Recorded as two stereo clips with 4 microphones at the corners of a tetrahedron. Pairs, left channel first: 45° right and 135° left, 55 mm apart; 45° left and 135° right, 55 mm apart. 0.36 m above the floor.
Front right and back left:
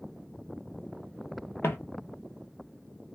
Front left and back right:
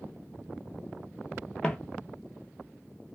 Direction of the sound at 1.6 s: 20° right.